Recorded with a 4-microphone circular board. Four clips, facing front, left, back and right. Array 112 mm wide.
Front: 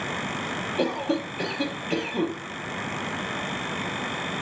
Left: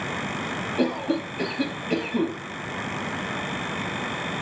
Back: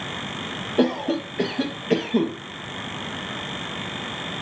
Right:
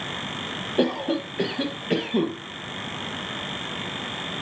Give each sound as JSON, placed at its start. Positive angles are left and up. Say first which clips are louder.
{"t": 0.8, "sound": "a cough", "louder": "right 2 dB, back 5 dB", "azimuth_deg": -145, "distance_m": 3.5}